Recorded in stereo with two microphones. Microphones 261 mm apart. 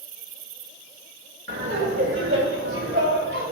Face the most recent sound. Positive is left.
turn(degrees=-50)  # may be behind; listen again after turning